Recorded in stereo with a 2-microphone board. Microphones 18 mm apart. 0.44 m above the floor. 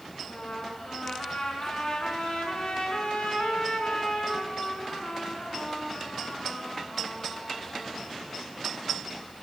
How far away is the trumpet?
About 5 m.